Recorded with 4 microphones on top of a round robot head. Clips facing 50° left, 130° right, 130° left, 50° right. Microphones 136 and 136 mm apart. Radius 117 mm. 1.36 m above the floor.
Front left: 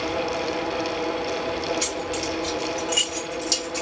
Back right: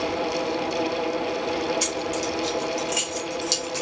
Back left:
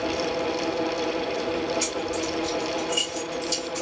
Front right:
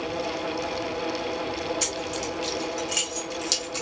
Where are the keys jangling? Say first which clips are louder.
Back right 1 dB, back left 3 dB; 85° right, 2.0 m; by 3.8 s 60° right, 2.5 m.